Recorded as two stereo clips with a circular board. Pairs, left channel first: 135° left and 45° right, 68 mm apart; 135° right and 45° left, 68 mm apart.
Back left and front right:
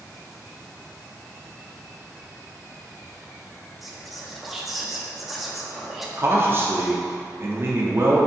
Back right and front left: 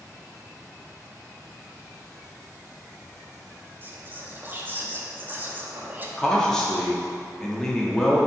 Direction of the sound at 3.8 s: 40° left.